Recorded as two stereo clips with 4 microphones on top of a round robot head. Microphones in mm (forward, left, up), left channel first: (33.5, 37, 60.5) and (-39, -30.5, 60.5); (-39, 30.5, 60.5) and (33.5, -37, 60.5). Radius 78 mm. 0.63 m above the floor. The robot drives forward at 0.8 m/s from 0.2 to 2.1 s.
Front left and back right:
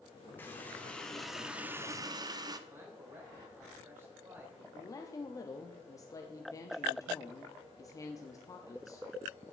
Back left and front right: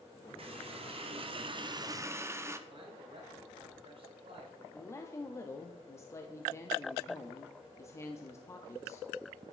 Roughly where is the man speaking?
Right.